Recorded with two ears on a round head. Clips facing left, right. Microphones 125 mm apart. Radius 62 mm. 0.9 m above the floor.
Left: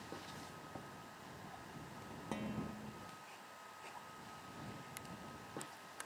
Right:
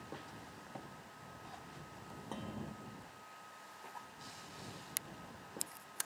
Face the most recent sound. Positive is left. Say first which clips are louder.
# left 2 dB
turn(degrees=10)  # may be behind; listen again after turning